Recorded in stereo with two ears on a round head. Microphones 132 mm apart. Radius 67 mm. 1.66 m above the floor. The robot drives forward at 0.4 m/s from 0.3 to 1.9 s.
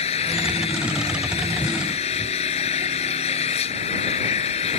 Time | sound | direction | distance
0.0 | an engine running | 40° left (ahead or behind) | ?